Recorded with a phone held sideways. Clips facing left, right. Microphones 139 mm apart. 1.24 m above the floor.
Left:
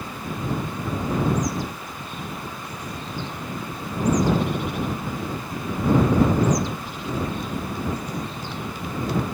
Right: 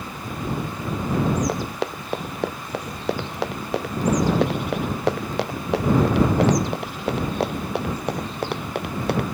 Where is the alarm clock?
No alarm clock in this recording.